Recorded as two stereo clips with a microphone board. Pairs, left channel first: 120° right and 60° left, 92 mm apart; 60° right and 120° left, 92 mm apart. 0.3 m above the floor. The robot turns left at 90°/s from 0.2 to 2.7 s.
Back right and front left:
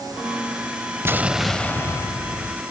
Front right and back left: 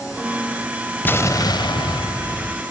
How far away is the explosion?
About 0.6 m.